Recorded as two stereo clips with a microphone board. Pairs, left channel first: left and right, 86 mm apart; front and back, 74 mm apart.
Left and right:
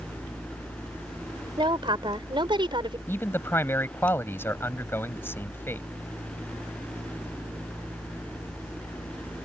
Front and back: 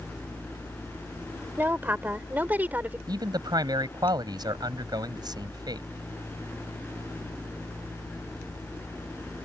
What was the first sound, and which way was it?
A woman speaking, 115° right.